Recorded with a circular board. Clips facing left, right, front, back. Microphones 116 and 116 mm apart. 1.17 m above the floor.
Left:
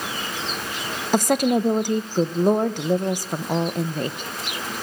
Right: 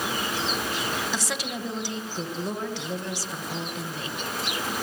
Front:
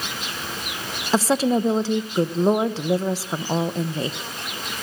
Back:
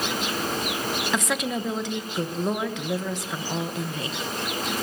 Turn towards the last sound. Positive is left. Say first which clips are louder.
# left 13 dB, front 12 dB
turn(degrees=55)